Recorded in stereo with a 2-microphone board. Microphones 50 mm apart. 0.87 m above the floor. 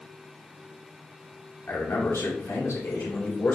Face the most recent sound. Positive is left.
turn(degrees=55)  # may be behind; listen again after turning